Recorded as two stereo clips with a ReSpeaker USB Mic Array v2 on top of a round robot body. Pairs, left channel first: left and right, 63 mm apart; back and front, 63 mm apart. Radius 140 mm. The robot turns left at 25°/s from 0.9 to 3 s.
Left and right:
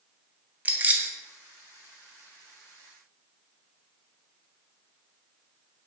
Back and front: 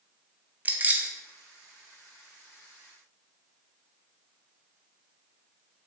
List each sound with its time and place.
0.7 s keys jangling: 40° right, 0.5 m; by 1.1 s 45° right, 0.5 m